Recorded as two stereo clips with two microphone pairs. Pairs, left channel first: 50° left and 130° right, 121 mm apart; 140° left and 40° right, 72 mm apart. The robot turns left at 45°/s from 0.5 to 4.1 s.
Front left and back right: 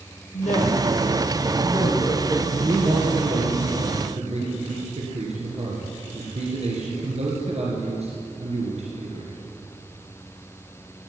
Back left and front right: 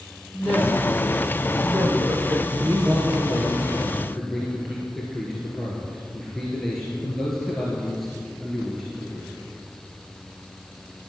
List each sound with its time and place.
0.3 s a woman speaking: 40° left, 5 m; by 2.5 s 45° right, 5 m
2.6 s a man speaking: 65° right, 3 m; by 9.4 s 135° right, 3 m